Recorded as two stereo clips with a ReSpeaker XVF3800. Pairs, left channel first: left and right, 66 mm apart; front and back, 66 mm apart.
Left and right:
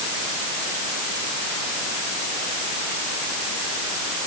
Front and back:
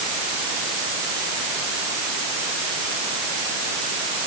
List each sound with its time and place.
Only background noise.